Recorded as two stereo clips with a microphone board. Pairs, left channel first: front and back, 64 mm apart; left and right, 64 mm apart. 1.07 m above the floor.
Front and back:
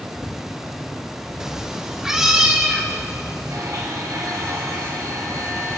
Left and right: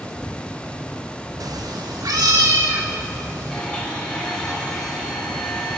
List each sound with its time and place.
1.4 s a cat meowing: 100° right, 0.6 m
3.5 s a blender: 165° left, 6.5 m